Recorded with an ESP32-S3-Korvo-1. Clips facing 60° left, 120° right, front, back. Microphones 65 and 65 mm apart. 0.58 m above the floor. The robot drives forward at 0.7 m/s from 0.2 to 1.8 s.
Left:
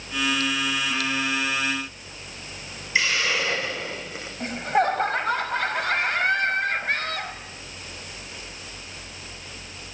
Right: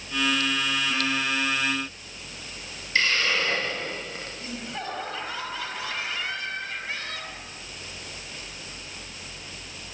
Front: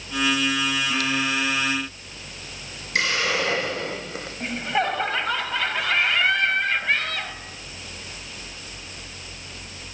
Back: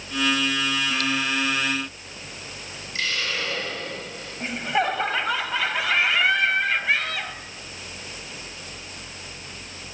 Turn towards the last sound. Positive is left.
turn(degrees=95)